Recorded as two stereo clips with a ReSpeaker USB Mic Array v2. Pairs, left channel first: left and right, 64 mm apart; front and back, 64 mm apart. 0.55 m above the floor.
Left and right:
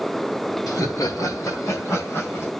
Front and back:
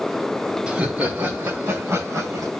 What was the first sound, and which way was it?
Laughter, 110° left.